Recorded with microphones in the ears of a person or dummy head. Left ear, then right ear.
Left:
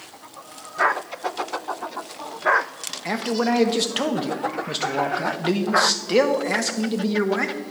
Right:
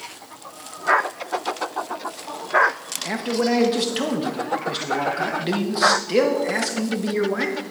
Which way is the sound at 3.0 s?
25° left (ahead or behind).